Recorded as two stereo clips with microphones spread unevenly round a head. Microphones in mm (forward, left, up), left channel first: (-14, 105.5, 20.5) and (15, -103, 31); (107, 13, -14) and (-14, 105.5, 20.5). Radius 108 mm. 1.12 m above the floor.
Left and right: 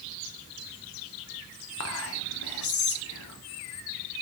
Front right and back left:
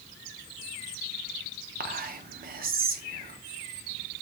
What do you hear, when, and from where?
1.8 s whispering: 110° left, 0.7 m